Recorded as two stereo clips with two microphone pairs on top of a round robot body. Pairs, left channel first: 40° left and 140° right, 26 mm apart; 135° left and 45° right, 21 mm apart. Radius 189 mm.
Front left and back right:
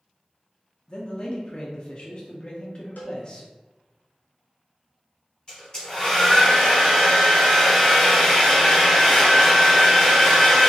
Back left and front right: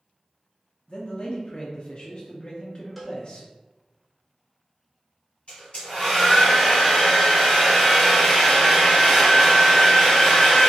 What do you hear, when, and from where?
0.9 s a man speaking: 85° left, 0.7 m
3.0 s a cowbell: 45° left, 0.6 m
5.5 s a hair dryer: 105° left, 1.3 m